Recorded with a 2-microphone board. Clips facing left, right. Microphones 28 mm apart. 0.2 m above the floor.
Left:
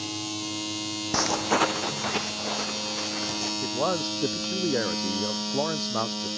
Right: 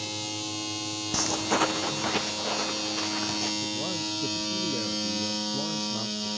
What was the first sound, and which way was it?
Footsteps, 25° left (ahead or behind).